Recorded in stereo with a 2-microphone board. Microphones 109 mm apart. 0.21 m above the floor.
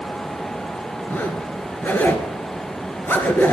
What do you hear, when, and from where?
1.1 s a zipper: 20° left (ahead or behind), 2.5 m